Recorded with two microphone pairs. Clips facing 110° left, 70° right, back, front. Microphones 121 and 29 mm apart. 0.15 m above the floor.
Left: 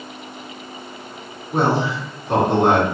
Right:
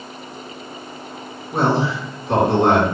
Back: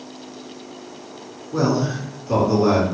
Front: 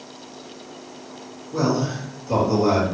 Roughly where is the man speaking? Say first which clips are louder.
Even, back 2 dB; behind.